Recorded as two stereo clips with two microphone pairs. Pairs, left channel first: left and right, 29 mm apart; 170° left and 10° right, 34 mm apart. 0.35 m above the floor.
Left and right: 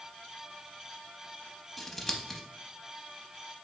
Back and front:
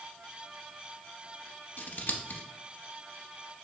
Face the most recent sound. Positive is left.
turn(degrees=175)